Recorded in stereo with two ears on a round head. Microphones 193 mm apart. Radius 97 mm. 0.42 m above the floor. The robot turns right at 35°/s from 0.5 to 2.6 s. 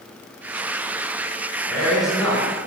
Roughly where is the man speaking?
Behind.